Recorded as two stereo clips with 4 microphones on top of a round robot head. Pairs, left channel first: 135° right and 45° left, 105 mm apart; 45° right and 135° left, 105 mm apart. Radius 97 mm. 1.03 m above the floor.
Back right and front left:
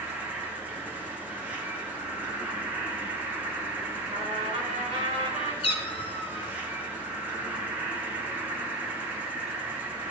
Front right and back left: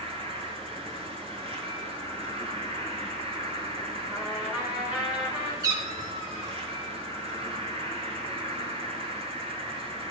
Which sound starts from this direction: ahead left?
A trumpet, at 4.1 s.